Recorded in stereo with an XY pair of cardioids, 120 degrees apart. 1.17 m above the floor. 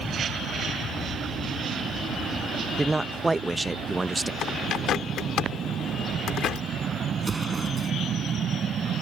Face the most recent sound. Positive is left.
turn(degrees=-25)